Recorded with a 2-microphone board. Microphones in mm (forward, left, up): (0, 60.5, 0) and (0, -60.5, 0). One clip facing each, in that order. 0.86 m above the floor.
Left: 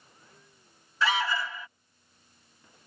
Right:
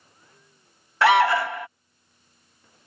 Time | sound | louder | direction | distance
1.0 | an alarm | right 11 dB | 65° right (ahead or behind) | ?